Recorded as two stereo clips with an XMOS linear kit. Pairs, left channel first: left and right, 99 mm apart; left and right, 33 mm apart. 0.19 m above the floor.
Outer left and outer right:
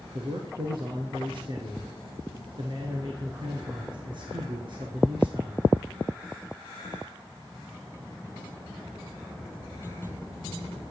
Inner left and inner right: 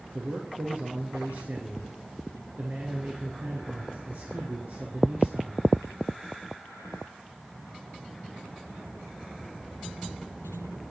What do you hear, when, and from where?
0.1 s a man speaking: 55° right (ahead or behind), 2 m